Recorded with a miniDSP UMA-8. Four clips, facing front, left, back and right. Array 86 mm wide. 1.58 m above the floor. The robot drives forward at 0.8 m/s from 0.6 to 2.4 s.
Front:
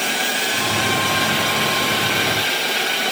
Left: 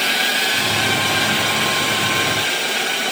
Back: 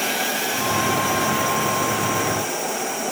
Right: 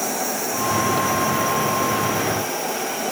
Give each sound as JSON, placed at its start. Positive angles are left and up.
{"t": 0.0, "sound": "a drone", "azimuth_deg": 75}